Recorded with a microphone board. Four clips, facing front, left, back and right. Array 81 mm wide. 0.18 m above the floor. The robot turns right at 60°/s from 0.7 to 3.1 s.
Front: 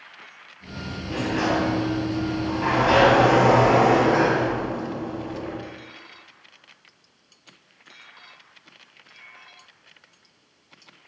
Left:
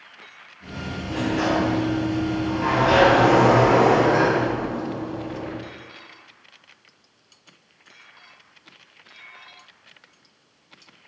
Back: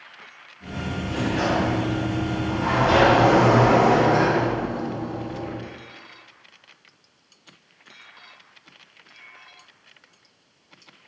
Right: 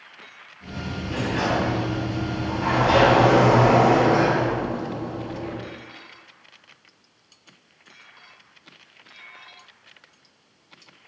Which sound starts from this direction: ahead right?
A sliding door, at 1.1 s.